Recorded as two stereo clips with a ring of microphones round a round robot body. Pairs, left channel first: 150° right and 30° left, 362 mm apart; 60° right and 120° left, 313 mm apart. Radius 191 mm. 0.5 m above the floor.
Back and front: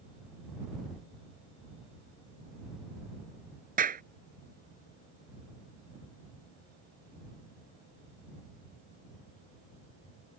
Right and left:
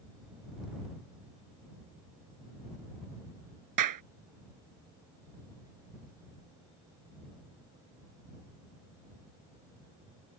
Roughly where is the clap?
Left.